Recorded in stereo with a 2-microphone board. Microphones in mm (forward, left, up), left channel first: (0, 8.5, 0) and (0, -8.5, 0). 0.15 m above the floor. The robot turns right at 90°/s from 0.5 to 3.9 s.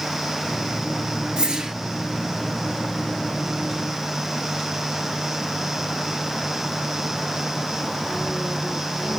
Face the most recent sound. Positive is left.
turn(degrees=145)